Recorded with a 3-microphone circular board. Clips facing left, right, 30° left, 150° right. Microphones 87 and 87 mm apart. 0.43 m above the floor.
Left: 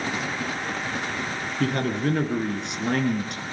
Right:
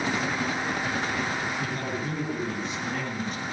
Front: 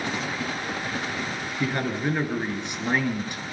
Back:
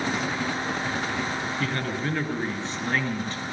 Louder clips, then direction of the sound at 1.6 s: Left 6 dB, front 6 dB; 105° left.